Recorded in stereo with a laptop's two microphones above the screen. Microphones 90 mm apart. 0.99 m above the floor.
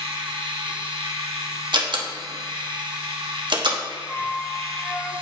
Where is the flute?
25° left (ahead or behind), 2 m.